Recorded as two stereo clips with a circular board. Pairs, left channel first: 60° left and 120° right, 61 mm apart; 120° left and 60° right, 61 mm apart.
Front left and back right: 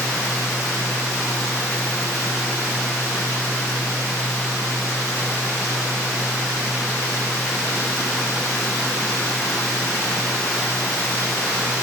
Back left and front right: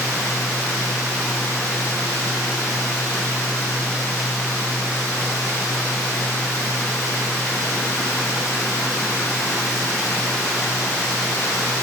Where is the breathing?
No breathing in this recording.